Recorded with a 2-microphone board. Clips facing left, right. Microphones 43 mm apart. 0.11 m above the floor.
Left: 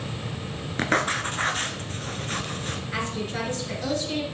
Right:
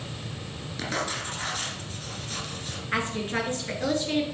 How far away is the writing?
About 0.9 m.